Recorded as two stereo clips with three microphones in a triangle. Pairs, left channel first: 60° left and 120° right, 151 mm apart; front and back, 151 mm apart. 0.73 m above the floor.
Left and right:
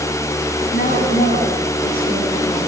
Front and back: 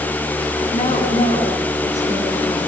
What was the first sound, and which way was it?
A woman speaking, 40° left.